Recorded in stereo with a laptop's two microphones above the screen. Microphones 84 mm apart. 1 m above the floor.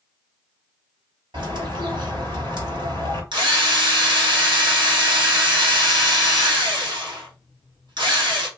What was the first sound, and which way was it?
A bird, 80° right.